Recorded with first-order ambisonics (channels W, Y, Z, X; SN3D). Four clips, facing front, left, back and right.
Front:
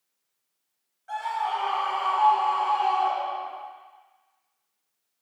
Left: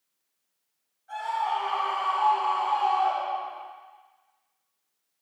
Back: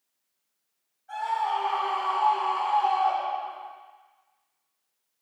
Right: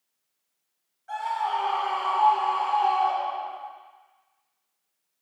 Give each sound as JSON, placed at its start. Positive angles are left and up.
{"t": 1.1, "sound": "a scream", "azimuth_deg": -35, "distance_m": 3.0}